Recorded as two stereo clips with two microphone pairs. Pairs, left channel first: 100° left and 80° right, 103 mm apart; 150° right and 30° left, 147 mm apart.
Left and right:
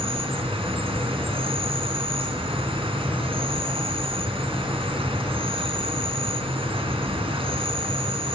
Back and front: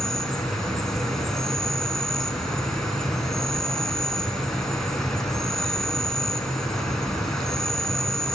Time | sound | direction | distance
0.0 | an insect | 60° right | 3.5 m